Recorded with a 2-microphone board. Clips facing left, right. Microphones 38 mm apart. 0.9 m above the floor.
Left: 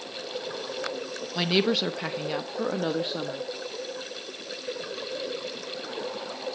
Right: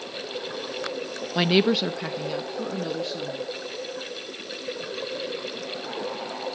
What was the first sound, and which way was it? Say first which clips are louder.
A woman speaking: right 4 dB; 20° right (ahead or behind).